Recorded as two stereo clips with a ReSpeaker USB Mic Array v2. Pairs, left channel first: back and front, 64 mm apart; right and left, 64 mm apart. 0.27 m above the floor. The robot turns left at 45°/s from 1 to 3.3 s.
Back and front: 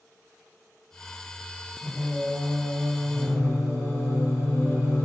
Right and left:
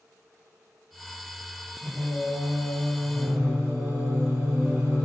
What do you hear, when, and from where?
1.8 s singing: 135° right, 1.1 m; by 5.0 s 160° left, 1.1 m